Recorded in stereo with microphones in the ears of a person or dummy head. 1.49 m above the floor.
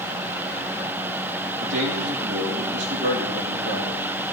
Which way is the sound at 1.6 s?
80° right.